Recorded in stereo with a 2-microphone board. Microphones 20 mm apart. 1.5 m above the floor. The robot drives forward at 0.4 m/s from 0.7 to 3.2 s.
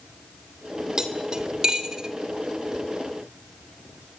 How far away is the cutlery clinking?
About 3 m.